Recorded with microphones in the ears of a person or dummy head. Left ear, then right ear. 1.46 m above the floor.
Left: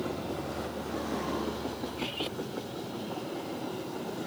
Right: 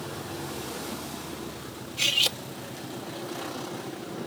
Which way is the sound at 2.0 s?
75° right (ahead or behind).